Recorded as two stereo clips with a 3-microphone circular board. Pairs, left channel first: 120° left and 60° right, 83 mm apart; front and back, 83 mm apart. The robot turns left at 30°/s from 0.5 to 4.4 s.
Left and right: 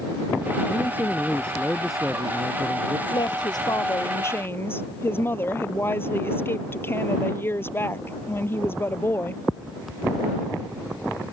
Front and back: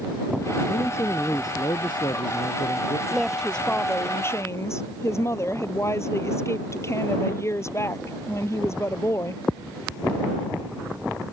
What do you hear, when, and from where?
0.7 s a man speaking: 65° left; by 3.0 s 5° right
3.1 s a woman speaking: 95° left; by 9.4 s 55° left